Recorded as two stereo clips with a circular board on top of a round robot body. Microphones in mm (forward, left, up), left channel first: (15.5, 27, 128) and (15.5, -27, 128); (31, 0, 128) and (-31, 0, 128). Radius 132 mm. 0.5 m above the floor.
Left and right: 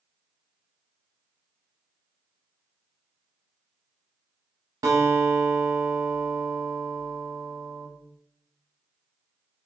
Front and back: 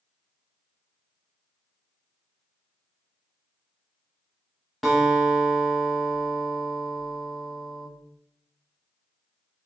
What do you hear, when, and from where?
4.8 s a guitar: 90° right, 0.5 m